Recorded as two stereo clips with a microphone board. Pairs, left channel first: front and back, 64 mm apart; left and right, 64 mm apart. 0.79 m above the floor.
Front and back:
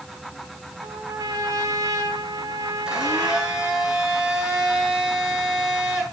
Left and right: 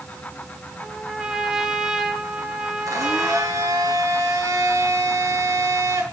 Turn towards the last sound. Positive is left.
turn(degrees=-105)